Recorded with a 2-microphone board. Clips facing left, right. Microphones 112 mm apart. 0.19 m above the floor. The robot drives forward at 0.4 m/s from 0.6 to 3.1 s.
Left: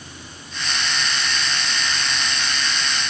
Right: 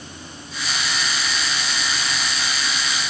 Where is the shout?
No shout in this recording.